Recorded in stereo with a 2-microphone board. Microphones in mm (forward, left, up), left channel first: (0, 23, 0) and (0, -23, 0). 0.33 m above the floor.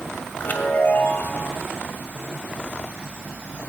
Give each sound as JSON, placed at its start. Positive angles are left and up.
{"t": 0.4, "sound": "a chime", "side_deg": 45, "distance_m": 1.9}